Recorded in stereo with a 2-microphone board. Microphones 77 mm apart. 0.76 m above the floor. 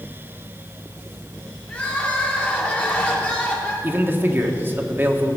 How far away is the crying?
About 2 m.